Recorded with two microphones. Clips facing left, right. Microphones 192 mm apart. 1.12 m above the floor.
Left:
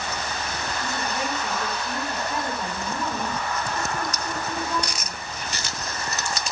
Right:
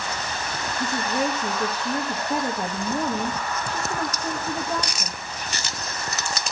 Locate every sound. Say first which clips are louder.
0.8 s a woman speaking: right 7 dB; 55° right (ahead or behind), 1.5 m